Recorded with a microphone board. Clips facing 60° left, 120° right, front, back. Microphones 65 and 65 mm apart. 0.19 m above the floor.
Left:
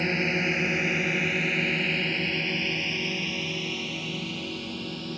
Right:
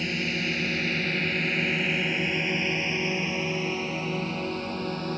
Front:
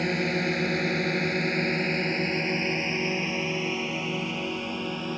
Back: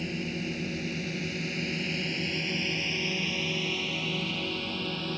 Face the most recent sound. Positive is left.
turn(degrees=-75)